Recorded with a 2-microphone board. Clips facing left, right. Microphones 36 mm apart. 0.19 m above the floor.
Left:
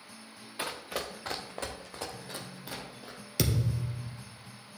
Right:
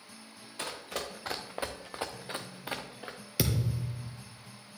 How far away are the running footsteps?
About 1.2 m.